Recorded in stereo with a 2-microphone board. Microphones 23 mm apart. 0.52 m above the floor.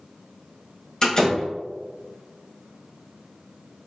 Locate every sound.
1.0 s a door slam: 25° left (ahead or behind), 1.6 m